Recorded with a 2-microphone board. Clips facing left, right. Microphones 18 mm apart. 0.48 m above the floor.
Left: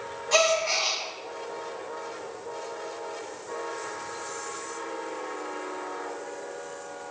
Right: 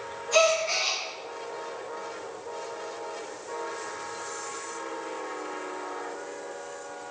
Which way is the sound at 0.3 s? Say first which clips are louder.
Even; 40° left (ahead or behind).